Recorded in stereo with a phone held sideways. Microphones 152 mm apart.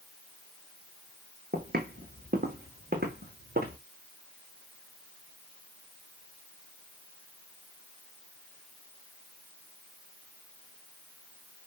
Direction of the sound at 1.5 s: 70° right (ahead or behind).